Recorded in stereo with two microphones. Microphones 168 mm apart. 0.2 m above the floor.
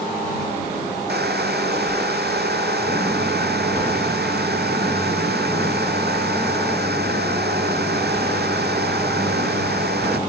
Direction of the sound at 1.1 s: 75° right (ahead or behind).